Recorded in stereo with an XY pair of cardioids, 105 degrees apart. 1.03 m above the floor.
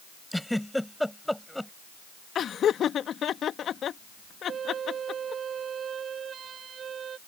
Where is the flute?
50° right.